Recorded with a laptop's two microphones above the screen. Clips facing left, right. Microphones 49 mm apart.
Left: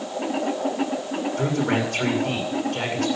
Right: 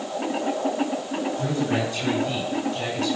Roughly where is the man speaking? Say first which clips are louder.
Left 3 dB; left.